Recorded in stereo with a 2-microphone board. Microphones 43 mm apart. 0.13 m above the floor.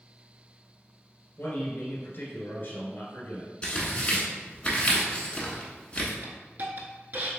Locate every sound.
1.4 s a man speaking: 50° left (ahead or behind), 1.6 m
3.6 s tearing paper: 25° left (ahead or behind), 1.0 m
6.2 s a hiss: 45° right (ahead or behind), 0.7 m